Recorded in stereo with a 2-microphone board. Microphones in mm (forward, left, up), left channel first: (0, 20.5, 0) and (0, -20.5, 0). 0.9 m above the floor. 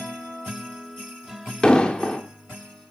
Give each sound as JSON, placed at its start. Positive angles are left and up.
{"t": 1.6, "sound": "an explosion", "side_deg": 20, "distance_m": 1.5}